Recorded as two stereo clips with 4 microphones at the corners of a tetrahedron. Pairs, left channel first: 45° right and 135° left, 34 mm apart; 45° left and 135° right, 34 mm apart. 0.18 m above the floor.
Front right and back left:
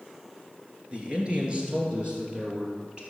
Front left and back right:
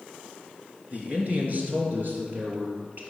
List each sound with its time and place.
0.9 s a man speaking: 170° right, 2.5 m; by 3.0 s 160° right, 4.5 m